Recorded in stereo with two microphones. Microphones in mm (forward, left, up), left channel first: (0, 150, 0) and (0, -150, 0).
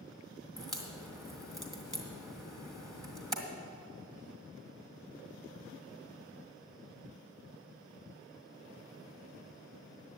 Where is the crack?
10° right (ahead or behind), 1.7 m.